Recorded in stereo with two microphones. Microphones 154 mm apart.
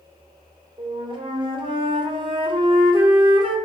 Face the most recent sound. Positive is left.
turn(degrees=-35)  # may be behind; listen again after turning